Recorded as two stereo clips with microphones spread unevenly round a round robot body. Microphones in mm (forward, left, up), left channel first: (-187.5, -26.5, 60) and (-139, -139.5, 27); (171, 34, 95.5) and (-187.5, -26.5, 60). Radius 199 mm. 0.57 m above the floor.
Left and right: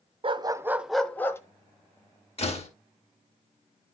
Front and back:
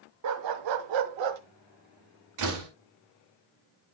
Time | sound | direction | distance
0.2 | a dog barking | 120° right | 0.8 m
2.4 | a door slam | 155° left | 2 m